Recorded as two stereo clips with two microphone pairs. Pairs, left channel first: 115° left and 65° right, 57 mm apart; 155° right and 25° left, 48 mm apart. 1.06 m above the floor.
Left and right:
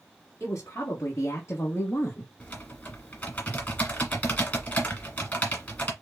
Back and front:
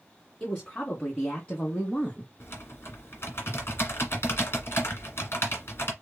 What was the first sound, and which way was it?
A woman speaking, 150° left.